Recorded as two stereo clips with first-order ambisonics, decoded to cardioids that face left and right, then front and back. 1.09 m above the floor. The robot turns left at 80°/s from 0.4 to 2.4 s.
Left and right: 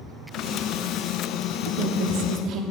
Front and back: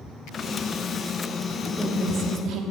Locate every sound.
1.7 s a woman speaking: 75° right, 0.9 m; by 2.6 s 135° right, 0.9 m